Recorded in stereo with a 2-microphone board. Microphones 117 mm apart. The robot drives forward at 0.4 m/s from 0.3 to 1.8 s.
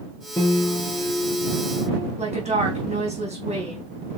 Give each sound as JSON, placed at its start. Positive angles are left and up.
{"t": 0.4, "sound": "a piano", "side_deg": 35, "distance_m": 1.5}
{"t": 2.2, "sound": "a woman speaking", "side_deg": -65, "distance_m": 4.0}